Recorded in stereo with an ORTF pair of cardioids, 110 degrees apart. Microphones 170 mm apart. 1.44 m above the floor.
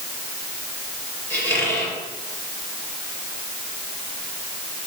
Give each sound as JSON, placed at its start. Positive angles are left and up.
{"t": 1.3, "sound": "a squeak", "azimuth_deg": 10, "distance_m": 5.5}